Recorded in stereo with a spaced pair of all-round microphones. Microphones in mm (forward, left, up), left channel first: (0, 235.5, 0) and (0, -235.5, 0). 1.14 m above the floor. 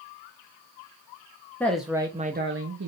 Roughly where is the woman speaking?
Centre.